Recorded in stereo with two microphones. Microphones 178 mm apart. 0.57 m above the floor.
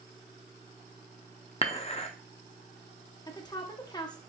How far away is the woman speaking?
About 0.7 m.